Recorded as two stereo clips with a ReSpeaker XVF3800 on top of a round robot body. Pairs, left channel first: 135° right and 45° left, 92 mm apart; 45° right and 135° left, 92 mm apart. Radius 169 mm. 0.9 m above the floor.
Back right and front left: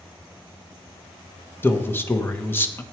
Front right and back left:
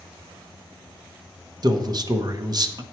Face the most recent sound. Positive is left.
turn(degrees=165)